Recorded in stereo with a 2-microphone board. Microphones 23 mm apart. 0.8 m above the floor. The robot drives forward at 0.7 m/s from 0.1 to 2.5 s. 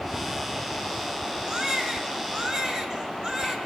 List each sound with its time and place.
1.5 s a baby crying: 30° right (ahead or behind), 6 m; by 3.6 s 25° right (ahead or behind), 6.5 m